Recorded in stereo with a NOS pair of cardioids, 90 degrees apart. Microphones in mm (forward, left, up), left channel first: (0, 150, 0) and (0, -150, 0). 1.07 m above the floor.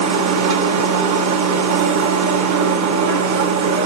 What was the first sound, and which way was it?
A machine running, 65° right.